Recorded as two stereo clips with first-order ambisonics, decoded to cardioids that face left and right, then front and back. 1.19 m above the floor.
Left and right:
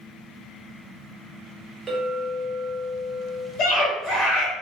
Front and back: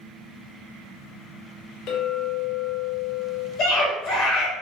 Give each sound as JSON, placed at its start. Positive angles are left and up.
{"t": 1.9, "sound": "a clink", "azimuth_deg": -15, "distance_m": 0.5}
{"t": 3.6, "sound": "a scream", "azimuth_deg": 50, "distance_m": 1.0}